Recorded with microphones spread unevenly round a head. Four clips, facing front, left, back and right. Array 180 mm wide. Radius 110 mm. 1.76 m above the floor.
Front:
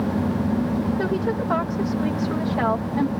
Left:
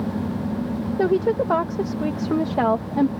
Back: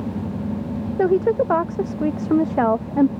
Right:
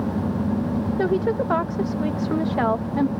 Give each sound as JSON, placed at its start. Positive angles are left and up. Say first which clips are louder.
{"t": 1.0, "sound": "a woman speaking", "louder": "left 4 dB, back 6 dB", "azimuth_deg": 170}